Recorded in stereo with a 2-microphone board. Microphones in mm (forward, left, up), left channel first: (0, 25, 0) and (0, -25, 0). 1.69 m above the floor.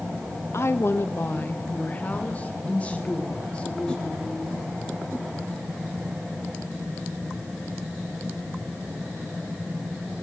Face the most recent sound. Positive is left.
turn(degrees=15)  # may be behind; listen again after turning